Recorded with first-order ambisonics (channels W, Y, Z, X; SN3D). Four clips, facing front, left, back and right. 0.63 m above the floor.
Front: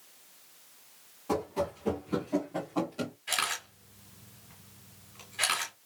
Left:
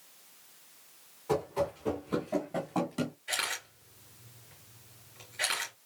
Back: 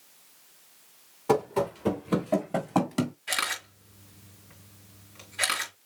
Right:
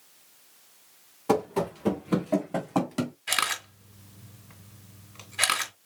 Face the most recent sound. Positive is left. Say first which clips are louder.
# right 6 dB, back 2 dB
turn(degrees=-95)